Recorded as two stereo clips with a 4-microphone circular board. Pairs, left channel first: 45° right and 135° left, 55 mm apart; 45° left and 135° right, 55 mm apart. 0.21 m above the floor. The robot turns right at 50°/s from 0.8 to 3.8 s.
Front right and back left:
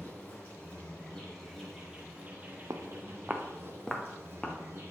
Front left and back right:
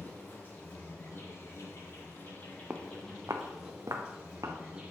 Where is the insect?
5° left, 3 m; by 4.9 s 155° left, 3 m.